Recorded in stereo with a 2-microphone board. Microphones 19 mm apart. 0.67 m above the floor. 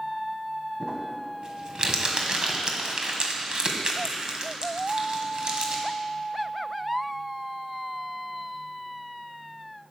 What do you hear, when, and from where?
0.8 s crumpling: 45° right (ahead or behind), 1.6 m